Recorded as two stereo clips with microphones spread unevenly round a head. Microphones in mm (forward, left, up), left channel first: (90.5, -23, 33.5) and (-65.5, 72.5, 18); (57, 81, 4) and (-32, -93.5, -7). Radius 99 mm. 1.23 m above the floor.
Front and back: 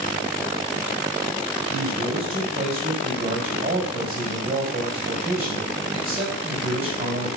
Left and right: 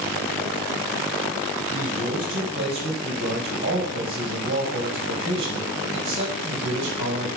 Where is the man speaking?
160° right, 4.5 m.